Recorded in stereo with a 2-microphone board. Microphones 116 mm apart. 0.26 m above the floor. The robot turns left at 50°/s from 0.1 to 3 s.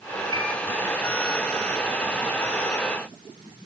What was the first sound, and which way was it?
A piano, 35° left (ahead or behind).